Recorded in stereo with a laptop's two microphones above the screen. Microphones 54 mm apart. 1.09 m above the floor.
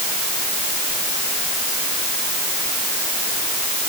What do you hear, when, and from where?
Only background noise.